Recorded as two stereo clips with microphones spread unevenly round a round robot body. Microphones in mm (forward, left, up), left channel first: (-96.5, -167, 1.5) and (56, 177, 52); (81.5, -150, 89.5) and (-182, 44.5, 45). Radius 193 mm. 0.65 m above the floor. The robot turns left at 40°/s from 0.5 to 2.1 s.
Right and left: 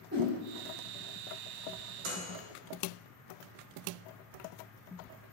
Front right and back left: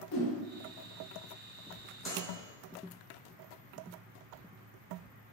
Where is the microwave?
60° left, 0.8 m; by 2.4 s 55° left, 0.8 m.